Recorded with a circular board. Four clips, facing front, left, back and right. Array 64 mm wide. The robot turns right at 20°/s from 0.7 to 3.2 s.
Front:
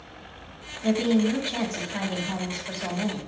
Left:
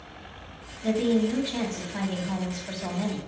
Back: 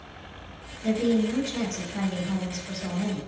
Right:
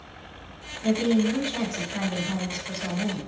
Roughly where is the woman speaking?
Ahead.